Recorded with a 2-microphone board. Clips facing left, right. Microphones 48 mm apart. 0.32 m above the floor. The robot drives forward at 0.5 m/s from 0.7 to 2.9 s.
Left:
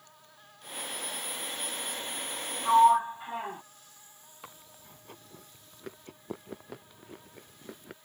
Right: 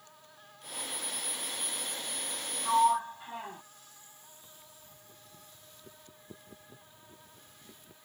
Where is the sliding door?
20° left (ahead or behind); by 3.6 s 25° left (ahead or behind).